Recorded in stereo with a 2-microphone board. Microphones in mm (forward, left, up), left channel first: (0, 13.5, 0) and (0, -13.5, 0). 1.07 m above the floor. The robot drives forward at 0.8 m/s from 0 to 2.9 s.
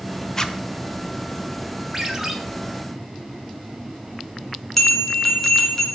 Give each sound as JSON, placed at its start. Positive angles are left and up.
{"t": 0.4, "sound": "a zipper", "side_deg": 20, "distance_m": 0.9}
{"t": 1.9, "sound": "a ringtone", "side_deg": -10, "distance_m": 1.9}
{"t": 4.8, "sound": "a bell", "side_deg": 10, "distance_m": 3.0}